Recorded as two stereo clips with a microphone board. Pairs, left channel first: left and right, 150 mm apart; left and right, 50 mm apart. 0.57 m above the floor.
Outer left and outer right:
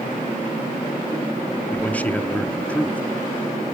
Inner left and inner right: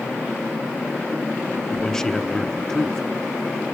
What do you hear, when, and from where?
1.7 s a man speaking: 10° left (ahead or behind), 0.7 m